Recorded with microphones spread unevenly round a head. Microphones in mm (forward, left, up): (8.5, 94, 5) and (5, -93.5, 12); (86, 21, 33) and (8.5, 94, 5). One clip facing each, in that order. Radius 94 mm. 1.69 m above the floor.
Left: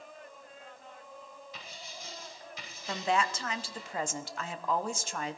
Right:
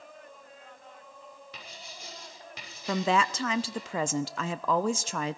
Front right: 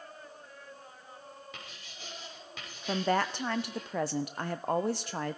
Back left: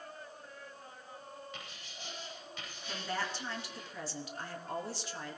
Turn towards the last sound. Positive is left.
turn(degrees=-80)